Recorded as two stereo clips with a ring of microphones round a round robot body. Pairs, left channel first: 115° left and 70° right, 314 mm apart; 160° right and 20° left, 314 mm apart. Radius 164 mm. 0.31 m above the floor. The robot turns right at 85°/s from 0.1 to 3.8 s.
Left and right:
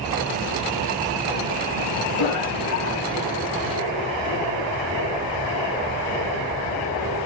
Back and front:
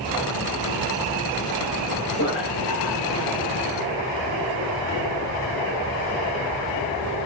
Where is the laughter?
135° left, 5.5 m; by 3.3 s 130° right, 5.5 m.